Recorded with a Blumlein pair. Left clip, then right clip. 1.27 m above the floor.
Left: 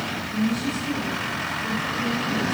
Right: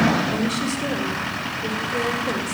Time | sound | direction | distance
0.3 | a woman speaking | 40° right | 4.5 m